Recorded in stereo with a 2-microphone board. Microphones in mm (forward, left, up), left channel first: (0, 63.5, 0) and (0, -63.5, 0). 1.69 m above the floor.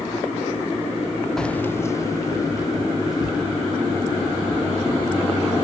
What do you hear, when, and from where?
1.4 s keys jangling: 5° left (ahead or behind), 0.6 m; by 5.3 s 30° left (ahead or behind), 5 m